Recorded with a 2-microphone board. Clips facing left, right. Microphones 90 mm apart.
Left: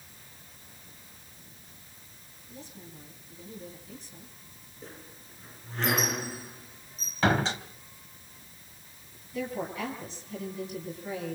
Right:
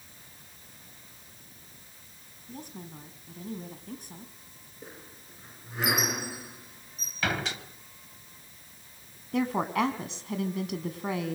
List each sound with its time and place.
2.5 s a woman speaking: 60° right (ahead or behind), 4.5 m
4.8 s a squeak: 10° right (ahead or behind), 3.5 m
7.2 s a door slam: 30° left (ahead or behind), 2.5 m
9.3 s a woman speaking: 75° right (ahead or behind), 4 m